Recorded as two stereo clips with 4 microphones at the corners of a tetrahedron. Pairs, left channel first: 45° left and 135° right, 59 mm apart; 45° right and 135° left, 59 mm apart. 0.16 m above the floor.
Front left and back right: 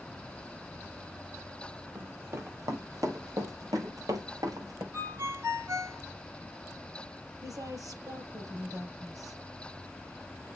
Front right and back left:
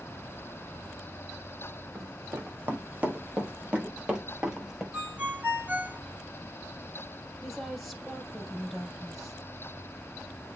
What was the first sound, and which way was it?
Running footsteps, 175° left.